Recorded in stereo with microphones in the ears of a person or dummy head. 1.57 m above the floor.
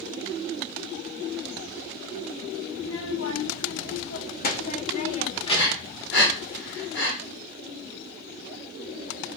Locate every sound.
2.8 s a child speaking: 80° left, 3 m; by 6.0 s 20° left (ahead or behind), 2.5 m
5.5 s breathing: 60° left (ahead or behind), 5.5 m